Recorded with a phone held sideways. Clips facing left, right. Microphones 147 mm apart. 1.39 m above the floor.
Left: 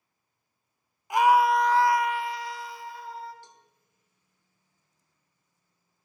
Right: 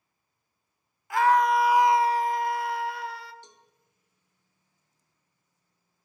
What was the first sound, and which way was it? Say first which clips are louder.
A scream: left 1 dB; 20° left (ahead or behind).